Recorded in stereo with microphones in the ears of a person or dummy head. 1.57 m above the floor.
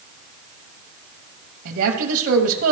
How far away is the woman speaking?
About 1.0 m.